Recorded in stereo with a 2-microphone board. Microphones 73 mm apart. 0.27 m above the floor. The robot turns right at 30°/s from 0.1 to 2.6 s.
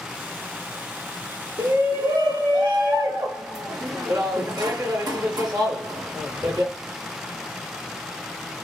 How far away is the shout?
About 2.5 m.